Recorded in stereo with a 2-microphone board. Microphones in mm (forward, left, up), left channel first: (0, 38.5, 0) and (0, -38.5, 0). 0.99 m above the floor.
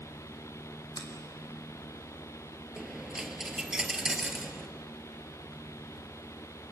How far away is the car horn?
No car horn in this recording.